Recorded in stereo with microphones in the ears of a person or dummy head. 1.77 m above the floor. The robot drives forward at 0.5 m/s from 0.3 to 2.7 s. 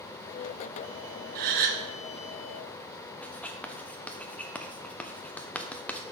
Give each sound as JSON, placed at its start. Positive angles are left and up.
{"t": 1.4, "sound": "a gasp", "side_deg": -50, "distance_m": 1.0}
{"t": 3.2, "sound": "writing", "side_deg": 10, "distance_m": 0.5}